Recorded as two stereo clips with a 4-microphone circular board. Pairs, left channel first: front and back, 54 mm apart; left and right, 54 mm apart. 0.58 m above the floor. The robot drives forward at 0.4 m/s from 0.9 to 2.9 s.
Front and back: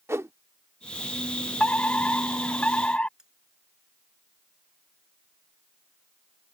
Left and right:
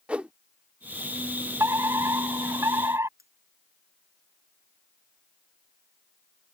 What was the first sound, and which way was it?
A whoosh, 155° right.